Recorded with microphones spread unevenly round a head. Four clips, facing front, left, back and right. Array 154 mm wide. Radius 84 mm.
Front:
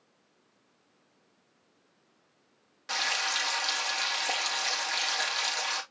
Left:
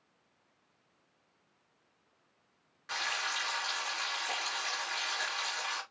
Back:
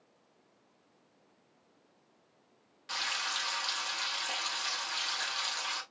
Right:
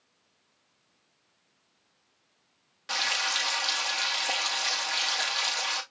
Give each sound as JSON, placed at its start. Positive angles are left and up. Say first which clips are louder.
{"t": 2.9, "sound": "frying", "louder": "right 4 dB, front 5 dB", "azimuth_deg": -50, "distance_m": 2.5}